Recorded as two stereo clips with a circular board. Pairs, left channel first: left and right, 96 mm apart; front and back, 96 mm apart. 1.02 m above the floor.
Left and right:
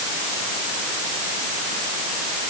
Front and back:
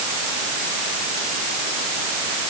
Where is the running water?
No running water in this recording.